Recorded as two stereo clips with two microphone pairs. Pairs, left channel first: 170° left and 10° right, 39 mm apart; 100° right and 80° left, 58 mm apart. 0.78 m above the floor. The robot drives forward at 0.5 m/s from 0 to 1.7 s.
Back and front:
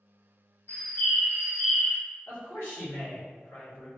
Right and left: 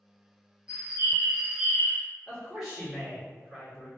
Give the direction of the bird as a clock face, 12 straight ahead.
7 o'clock.